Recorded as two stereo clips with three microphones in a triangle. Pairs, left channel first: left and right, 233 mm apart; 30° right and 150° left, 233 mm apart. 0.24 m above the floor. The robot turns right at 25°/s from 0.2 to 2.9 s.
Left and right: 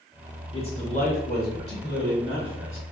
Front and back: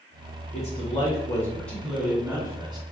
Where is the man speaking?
25° left, 2 m; by 2.8 s 85° left, 2 m.